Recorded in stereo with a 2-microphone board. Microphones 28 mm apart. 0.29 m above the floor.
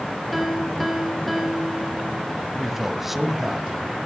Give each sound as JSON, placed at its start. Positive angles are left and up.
{"t": 0.3, "sound": "a piano", "side_deg": -5, "distance_m": 4.0}
{"t": 2.6, "sound": "a man speaking", "side_deg": -10, "distance_m": 1.8}